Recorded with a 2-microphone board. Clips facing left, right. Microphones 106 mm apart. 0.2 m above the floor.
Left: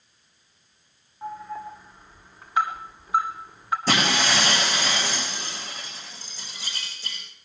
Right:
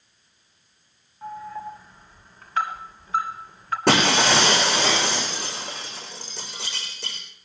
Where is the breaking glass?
65° right (ahead or behind), 7 m.